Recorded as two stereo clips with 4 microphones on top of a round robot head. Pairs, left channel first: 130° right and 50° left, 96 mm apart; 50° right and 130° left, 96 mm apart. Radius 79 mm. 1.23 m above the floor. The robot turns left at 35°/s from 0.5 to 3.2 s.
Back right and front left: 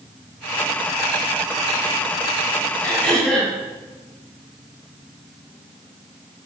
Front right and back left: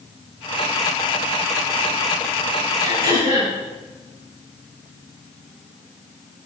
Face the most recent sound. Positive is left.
turn(degrees=145)